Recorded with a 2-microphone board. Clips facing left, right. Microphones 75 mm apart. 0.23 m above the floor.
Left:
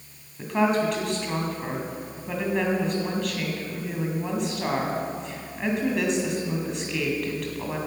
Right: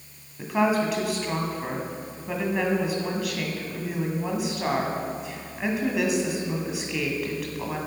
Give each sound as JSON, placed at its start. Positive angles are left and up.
{"t": 0.4, "sound": "a woman speaking", "side_deg": -5, "distance_m": 1.9}